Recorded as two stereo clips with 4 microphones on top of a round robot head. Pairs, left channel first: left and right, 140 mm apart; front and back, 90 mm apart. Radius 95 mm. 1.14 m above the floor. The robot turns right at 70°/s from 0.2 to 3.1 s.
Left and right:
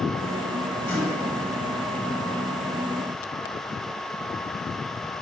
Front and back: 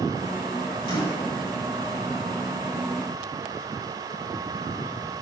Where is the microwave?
15° left, 4.5 m; by 1.3 s 45° left, 4.5 m.